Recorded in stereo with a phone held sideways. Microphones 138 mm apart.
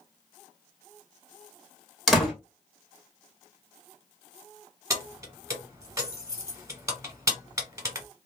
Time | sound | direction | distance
2.1 | a door slam | 5° left (ahead or behind) | 1.1 m
4.9 | keys jangling | 20° right (ahead or behind) | 0.9 m